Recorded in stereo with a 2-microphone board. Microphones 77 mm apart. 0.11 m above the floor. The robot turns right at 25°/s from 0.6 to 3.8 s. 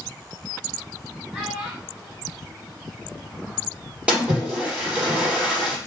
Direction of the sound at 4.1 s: 15° right (ahead or behind).